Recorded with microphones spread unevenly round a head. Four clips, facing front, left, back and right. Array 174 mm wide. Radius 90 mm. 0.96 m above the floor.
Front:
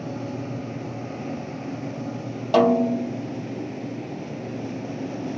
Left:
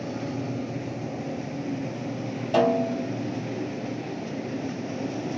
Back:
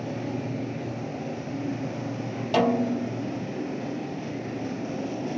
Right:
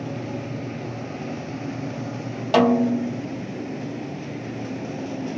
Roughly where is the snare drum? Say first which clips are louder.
Right 4 dB, front 5 dB; ahead right.